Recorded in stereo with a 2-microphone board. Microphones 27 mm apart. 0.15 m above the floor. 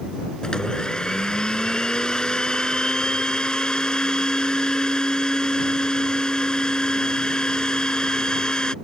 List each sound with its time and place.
0.4 s a blender: 30° left (ahead or behind)